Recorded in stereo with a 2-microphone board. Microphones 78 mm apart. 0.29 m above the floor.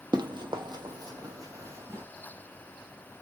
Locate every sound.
0.1 s running footsteps: 60° right (ahead or behind), 0.5 m; by 2.0 s 35° right (ahead or behind), 1.2 m